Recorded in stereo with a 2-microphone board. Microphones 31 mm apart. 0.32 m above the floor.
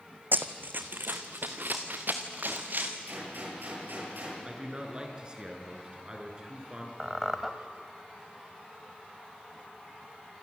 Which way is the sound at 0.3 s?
75° right (ahead or behind).